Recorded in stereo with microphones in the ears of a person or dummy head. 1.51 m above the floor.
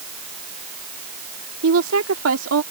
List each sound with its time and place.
1.6 s a woman speaking: 85° right